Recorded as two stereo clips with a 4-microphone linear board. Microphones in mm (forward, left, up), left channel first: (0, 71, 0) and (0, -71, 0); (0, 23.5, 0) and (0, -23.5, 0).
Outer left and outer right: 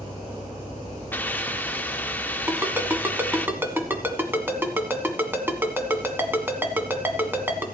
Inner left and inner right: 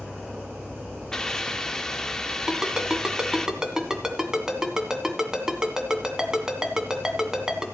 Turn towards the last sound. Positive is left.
turn(degrees=-15)  # may be behind; listen again after turning